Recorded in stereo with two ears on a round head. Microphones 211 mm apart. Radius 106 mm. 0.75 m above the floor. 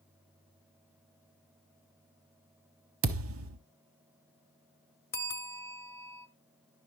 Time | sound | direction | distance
3.0 | a thud | 60° right (ahead or behind) | 1.0 m
5.1 | a bell | 10° left (ahead or behind) | 1.0 m